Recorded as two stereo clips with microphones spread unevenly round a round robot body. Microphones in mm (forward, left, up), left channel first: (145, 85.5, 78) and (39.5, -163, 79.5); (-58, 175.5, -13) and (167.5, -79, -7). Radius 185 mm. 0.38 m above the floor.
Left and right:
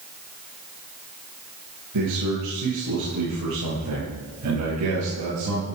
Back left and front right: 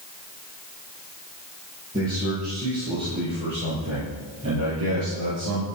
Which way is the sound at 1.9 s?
125° right.